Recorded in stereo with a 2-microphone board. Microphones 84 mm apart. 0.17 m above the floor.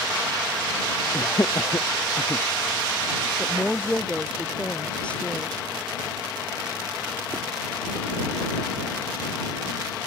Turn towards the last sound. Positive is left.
turn(degrees=15)  # may be behind; listen again after turning